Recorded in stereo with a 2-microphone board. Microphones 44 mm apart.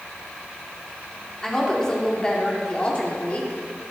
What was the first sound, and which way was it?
A woman speaking, 10° left (ahead or behind).